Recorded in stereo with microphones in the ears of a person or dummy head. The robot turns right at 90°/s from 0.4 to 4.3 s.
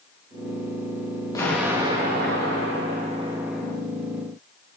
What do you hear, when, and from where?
1.4 s an explosion: 165° left, 2.5 m; by 3.8 s 20° left, 2.5 m